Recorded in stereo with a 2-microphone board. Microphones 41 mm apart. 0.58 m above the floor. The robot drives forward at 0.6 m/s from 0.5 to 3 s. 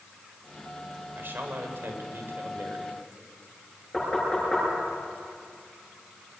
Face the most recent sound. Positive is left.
turn(degrees=10)  # may be behind; listen again after turning